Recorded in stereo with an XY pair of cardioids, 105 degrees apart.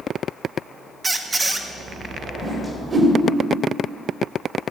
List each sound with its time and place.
1.0 s a squeak: 20° right, 1.0 m
2.4 s a whoosh: 30° right, 2.5 m